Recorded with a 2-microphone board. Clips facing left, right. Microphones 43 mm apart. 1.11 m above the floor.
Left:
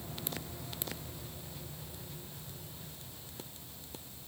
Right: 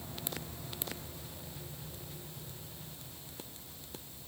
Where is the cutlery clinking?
I don't hear cutlery clinking.